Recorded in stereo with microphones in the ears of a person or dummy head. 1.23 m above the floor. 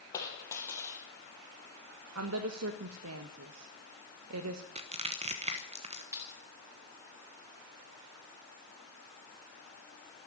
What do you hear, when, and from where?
0.1 s a dropped coin: 20° left (ahead or behind), 4.5 m
2.1 s a woman speaking: 80° right, 1.1 m
4.8 s crushing: 30° right (ahead or behind), 1.1 m
6.1 s keys jangling: 10° right (ahead or behind), 4.5 m